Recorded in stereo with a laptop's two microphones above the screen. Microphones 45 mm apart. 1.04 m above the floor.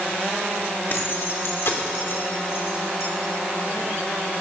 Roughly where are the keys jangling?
Left.